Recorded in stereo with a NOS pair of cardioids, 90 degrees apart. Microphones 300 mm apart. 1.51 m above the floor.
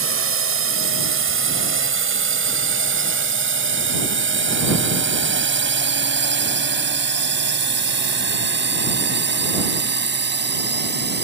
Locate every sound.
0.0 s a drone: 45° right; by 11.2 s 35° right